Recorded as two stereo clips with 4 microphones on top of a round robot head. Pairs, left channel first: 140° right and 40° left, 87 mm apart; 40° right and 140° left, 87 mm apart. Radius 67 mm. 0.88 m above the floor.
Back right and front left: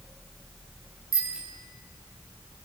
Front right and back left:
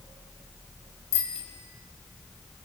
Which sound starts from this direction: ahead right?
A bicycle bell, at 1.1 s.